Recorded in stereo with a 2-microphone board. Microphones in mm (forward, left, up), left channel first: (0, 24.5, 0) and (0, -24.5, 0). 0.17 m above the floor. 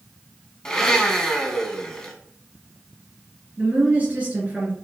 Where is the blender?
10° left (ahead or behind), 0.6 m.